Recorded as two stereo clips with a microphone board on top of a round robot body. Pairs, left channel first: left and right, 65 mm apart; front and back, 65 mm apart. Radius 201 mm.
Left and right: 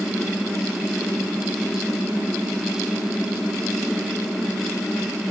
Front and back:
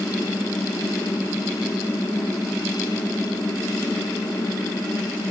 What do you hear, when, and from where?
Only background noise.